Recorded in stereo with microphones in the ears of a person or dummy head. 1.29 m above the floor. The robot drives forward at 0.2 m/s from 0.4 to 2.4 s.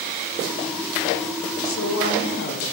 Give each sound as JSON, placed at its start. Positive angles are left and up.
{"t": 1.6, "sound": "a woman speaking", "side_deg": 60, "distance_m": 0.6}